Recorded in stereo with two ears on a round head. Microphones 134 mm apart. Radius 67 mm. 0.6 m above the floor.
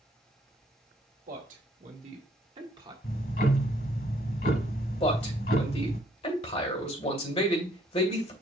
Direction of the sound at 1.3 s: 55° right (ahead or behind).